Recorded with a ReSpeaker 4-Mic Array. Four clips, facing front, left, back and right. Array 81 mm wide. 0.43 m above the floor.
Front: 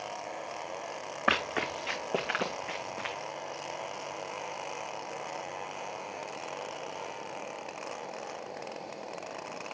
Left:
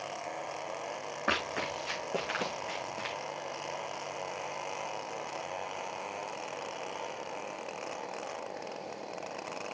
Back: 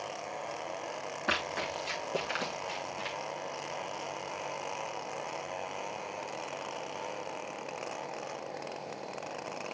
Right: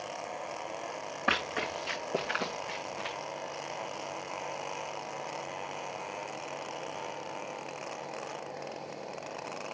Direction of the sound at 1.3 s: 5° right.